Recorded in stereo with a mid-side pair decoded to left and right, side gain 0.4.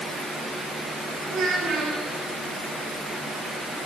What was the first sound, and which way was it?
A child speaking, 55° right.